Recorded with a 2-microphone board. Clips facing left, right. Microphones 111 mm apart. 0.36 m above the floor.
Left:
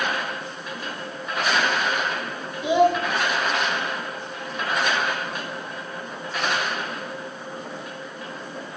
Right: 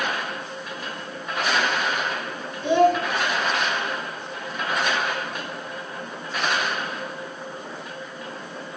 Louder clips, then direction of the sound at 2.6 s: Right 1 dB; 10° left (ahead or behind).